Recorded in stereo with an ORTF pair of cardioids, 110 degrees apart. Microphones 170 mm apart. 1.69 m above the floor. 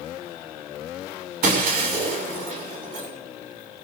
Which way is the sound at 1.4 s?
60° right.